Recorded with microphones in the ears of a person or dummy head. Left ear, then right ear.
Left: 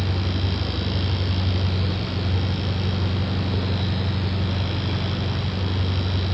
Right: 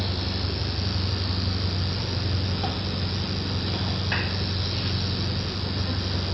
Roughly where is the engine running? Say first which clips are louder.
Left 1 dB; left.